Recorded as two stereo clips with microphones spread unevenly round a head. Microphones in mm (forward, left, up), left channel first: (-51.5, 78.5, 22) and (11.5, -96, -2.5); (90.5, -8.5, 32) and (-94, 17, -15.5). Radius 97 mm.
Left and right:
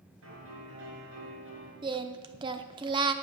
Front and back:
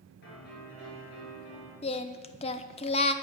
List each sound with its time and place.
0.2 s a piano: 50° right, 5 m
1.8 s singing: 5° right, 0.5 m